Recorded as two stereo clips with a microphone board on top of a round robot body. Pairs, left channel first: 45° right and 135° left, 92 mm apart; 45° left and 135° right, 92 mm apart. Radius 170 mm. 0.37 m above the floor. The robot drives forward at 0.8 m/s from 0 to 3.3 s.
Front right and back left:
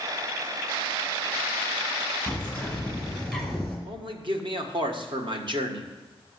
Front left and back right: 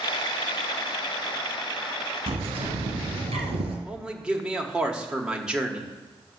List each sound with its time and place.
2.3 s a bird: 130° right, 2 m; by 3.8 s 140° right, 3 m
3.9 s a man speaking: 145° left, 1.6 m